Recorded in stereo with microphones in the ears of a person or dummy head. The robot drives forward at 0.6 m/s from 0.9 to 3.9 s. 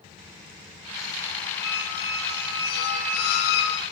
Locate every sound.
1.6 s a squeak: 55° left (ahead or behind), 5 m; by 3.8 s 65° left (ahead or behind), 4.5 m